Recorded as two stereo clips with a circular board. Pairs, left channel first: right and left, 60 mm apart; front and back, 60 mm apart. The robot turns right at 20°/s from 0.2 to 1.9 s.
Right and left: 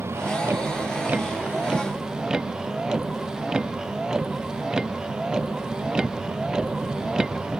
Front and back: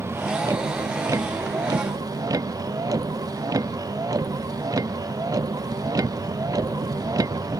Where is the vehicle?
135° left; by 7.6 s 170° left.